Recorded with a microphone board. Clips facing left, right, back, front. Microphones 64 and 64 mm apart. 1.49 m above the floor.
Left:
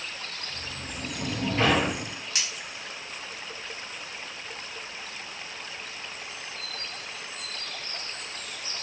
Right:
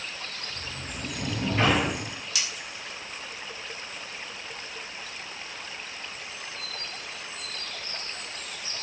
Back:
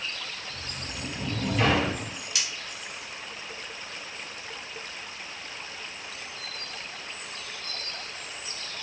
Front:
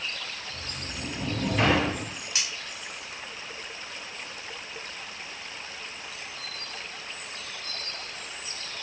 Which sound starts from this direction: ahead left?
Cutlery clinking, at 2.4 s.